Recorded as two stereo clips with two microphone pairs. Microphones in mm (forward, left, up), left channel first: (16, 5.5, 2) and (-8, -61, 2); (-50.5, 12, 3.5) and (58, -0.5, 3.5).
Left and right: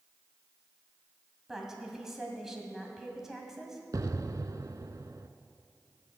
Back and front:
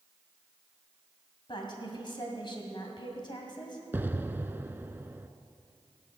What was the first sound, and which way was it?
A woman speaking, 170° left.